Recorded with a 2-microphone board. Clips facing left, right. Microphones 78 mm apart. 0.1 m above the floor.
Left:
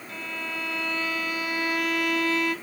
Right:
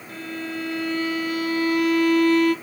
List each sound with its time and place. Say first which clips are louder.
0.1 s a violin: right 4 dB; 45° right (ahead or behind), 2 m